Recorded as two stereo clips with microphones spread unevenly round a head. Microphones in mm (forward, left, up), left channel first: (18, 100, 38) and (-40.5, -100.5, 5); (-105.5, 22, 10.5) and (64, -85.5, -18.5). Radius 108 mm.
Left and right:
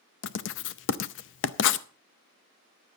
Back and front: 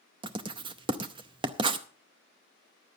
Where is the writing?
40° left, 0.6 m.